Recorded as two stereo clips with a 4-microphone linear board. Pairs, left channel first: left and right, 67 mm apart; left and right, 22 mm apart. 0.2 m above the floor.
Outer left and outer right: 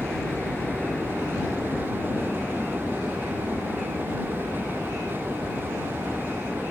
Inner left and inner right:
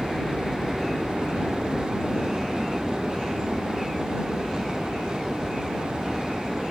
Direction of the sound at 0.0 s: 15° left (ahead or behind).